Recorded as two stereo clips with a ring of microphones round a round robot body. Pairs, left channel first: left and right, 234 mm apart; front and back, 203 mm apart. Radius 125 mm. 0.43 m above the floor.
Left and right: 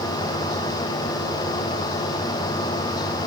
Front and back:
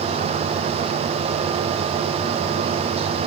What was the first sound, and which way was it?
Only background noise.